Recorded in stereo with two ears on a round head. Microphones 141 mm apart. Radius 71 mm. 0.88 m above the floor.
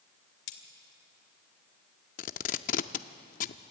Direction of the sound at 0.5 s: 90° left.